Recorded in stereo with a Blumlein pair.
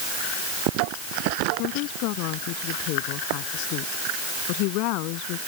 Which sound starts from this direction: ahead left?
A woman speaking, at 1.6 s.